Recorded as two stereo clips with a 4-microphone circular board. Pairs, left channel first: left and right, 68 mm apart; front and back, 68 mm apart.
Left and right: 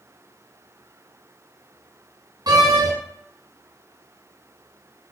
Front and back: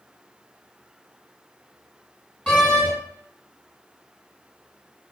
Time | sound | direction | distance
2.5 | a door slam | 70° right | 3.5 m